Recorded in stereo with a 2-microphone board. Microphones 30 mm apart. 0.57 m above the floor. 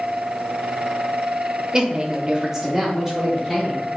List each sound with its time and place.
1.7 s a woman speaking: 25° right (ahead or behind), 0.8 m; by 3.9 s 5° left (ahead or behind), 1.6 m